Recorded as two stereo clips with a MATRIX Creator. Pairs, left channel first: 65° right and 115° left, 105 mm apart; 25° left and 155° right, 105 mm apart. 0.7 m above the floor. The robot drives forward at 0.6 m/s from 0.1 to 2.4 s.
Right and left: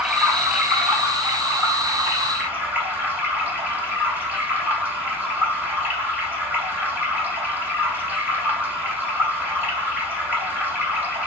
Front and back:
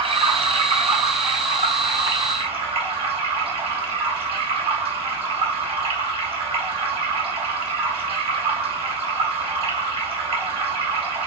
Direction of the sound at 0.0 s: 160° right.